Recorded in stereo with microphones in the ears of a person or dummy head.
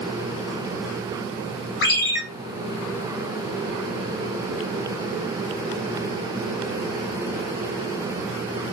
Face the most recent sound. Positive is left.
turn(degrees=60)  # may be behind; listen again after turning